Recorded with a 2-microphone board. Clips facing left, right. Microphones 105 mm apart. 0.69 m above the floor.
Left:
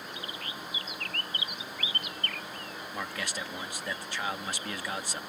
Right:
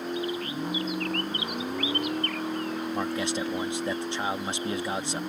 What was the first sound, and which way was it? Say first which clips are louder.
A vehicle: right 11 dB; 65° right (ahead or behind).